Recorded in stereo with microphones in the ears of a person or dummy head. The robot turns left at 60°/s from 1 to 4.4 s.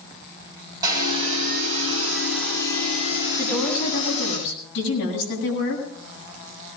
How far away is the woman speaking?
About 8 m.